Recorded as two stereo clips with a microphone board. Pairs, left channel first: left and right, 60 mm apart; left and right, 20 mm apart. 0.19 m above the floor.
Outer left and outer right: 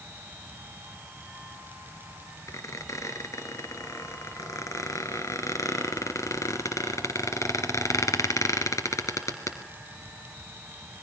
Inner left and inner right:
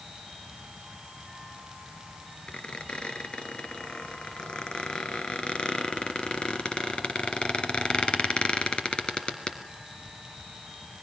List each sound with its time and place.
2.5 s a squeak: 65° left (ahead or behind), 2.5 m